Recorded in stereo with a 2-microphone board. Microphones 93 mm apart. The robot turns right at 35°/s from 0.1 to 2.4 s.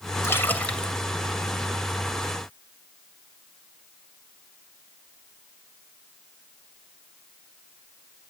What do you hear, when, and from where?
0.2 s a splash: 30° left (ahead or behind), 2.5 m; by 0.9 s 5° left (ahead or behind), 2.5 m